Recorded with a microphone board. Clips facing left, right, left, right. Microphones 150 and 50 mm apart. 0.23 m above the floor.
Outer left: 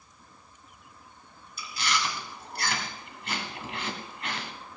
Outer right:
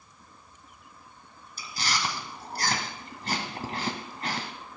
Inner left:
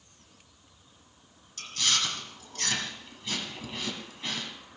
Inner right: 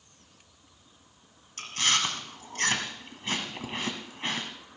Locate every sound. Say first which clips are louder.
1.6 s chewing: outer left 1 dB, inner right 3 dB; 40° right (ahead or behind), 1.6 m